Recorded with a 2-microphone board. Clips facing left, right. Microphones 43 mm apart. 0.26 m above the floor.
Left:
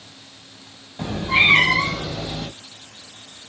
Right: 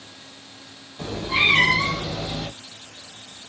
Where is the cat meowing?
35° left (ahead or behind), 0.9 m; by 2.5 s 20° right (ahead or behind), 0.6 m.